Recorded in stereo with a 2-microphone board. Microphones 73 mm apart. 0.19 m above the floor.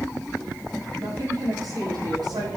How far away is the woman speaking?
About 7 m.